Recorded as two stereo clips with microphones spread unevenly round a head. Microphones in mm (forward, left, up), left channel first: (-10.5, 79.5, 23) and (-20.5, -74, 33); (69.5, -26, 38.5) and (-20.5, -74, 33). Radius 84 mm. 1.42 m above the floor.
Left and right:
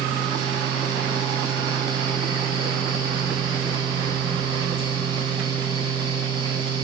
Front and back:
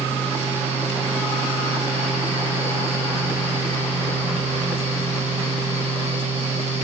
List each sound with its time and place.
0.0 s a fan: 150° right, 6 m